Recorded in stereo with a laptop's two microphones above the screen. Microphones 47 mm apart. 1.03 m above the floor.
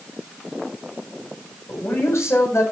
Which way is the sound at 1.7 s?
70° left (ahead or behind).